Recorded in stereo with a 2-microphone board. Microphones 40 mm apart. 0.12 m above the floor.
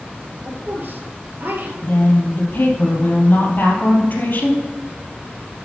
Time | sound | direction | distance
0.4 | a woman speaking | 60° right (ahead or behind) | 2.5 m
1.8 | a woman speaking | 55° left (ahead or behind) | 3 m